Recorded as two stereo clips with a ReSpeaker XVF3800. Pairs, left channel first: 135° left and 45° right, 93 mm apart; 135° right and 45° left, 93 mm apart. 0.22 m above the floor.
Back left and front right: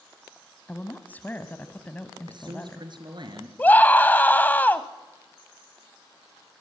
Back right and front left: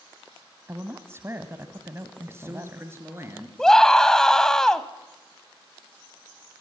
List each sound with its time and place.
0.7 s a woman speaking: 80° left, 1.2 m
2.3 s a man speaking: 15° right, 3.5 m
3.6 s a scream: 155° left, 1.0 m